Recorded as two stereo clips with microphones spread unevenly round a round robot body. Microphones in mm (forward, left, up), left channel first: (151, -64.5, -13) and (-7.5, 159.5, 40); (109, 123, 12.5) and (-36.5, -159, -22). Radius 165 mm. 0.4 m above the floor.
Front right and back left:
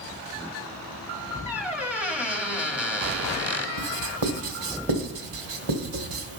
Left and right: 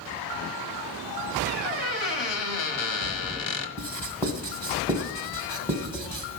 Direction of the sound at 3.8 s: 150° left.